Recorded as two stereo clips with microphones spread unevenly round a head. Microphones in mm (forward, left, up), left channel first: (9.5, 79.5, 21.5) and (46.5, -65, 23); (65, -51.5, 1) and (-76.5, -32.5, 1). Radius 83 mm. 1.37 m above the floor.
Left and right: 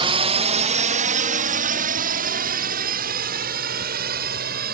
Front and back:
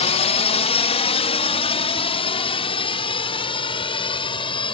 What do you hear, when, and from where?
0.0 s a drone: 35° right; by 4.8 s 60° right